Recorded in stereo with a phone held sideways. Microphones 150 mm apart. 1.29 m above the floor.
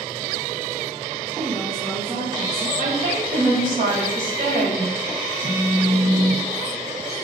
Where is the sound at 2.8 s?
65° right (ahead or behind), 3.5 m.